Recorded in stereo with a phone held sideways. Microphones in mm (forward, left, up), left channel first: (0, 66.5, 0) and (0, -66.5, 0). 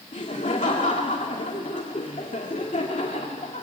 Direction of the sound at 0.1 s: 65° left (ahead or behind).